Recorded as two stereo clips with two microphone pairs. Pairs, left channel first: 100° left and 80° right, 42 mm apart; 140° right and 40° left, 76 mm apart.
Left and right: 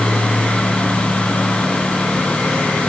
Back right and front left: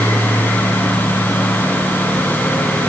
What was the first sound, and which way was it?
Only background noise.